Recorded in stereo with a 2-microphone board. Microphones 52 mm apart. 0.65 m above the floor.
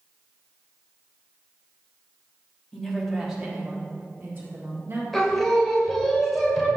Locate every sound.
2.7 s a woman speaking: 10° left (ahead or behind), 1.4 m; by 5.0 s 45° right (ahead or behind), 2.5 m
5.1 s singing: centre (ahead or behind), 1.7 m